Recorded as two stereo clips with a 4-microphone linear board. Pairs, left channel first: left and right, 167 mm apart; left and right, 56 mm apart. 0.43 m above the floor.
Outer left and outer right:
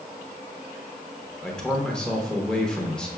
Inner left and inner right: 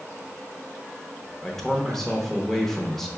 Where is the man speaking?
5° left (ahead or behind), 0.8 m.